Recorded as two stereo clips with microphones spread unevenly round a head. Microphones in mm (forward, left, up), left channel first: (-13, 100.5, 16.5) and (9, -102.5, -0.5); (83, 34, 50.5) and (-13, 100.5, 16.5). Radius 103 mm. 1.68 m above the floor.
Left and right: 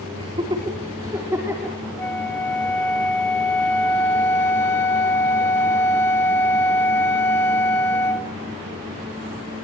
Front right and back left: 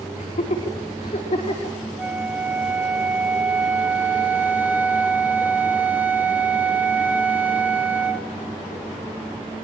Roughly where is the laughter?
Ahead.